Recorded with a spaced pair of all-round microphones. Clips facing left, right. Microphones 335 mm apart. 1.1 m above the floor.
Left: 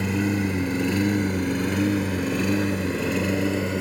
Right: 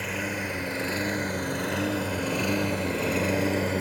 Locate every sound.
0.0 s a lawn mower: 55° left (ahead or behind); by 3.8 s 15° left (ahead or behind)